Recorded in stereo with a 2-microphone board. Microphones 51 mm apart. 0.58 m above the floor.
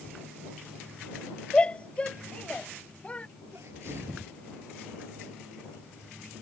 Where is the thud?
I don't hear a thud.